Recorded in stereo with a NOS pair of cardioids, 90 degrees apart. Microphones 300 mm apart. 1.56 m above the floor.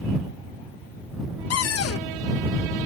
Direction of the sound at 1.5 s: 55° left.